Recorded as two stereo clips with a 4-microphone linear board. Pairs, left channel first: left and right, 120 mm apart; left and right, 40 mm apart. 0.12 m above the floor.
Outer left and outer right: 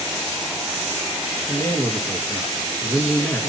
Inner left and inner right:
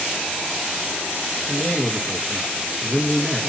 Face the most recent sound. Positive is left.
turn(degrees=15)  # may be behind; listen again after turning